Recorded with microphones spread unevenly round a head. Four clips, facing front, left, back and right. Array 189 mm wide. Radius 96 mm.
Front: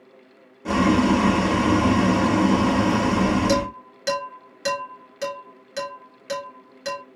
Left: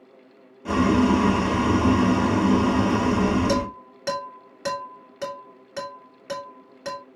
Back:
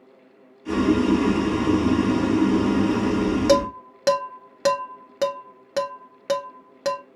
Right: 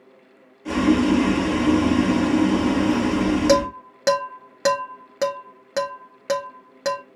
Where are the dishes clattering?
155° right, 1.6 m.